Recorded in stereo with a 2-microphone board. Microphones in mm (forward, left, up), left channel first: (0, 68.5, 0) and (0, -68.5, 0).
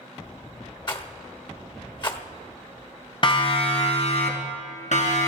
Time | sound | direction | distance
0.9 | a rattle | 35° left (ahead or behind) | 1.2 m
3.2 | a siren | 40° left (ahead or behind) | 2.5 m